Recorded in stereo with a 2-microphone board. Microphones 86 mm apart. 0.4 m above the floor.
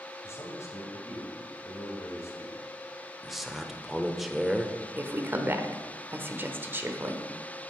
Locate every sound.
0.2 s a man speaking: 35° left (ahead or behind), 2.5 m
3.2 s a man speaking: centre (ahead or behind), 0.8 m
5.0 s a woman speaking: 25° right (ahead or behind), 1.1 m